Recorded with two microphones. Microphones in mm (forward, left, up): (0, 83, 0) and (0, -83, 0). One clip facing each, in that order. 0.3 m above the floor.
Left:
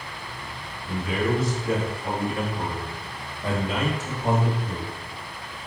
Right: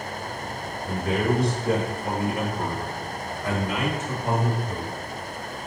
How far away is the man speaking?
About 1.3 m.